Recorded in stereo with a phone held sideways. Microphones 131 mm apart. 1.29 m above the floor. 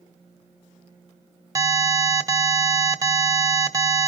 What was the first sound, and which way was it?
An alarm, 25° right (ahead or behind).